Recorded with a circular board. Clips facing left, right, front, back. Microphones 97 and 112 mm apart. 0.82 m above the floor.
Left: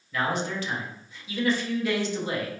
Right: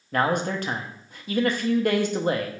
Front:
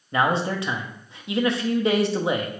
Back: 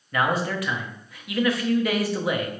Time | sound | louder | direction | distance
0.1 | a man speaking | right 4 dB, front 2 dB | 60° right | 0.7 m